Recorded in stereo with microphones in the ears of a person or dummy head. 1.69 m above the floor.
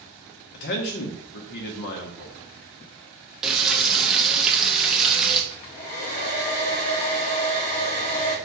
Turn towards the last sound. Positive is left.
turn(degrees=30)  # may be behind; listen again after turning